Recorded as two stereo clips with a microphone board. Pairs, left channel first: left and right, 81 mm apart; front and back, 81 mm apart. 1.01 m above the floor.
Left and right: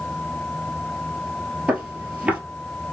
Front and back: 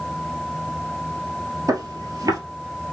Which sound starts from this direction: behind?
Footsteps, at 1.7 s.